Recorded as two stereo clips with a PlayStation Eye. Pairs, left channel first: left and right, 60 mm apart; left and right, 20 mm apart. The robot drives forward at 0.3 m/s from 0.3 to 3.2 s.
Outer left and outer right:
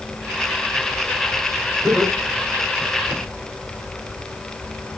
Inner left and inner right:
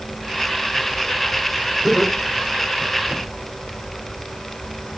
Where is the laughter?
20° right (ahead or behind), 2.0 m; by 3.2 s 25° right (ahead or behind), 1.7 m.